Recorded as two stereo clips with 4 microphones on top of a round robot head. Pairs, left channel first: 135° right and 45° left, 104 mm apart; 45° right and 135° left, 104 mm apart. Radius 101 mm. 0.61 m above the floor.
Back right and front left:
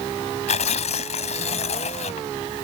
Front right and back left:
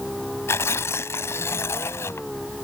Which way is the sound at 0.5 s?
115° right.